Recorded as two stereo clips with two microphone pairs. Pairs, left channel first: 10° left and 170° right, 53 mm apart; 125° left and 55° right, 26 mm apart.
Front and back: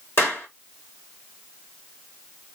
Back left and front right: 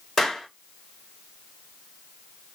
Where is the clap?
50° left, 3 m.